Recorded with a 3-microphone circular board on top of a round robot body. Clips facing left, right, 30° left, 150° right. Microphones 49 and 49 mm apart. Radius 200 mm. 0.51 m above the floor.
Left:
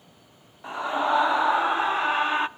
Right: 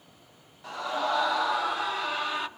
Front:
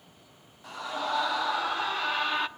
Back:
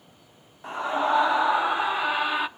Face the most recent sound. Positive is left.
turn(degrees=130)